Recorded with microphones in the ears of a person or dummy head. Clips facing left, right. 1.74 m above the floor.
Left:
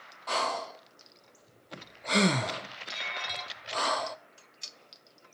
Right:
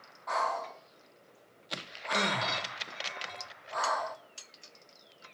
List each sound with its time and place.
0.3 s breathing: 40° left (ahead or behind), 0.5 m